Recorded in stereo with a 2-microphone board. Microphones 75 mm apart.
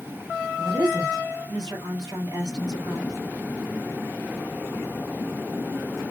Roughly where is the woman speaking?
Right.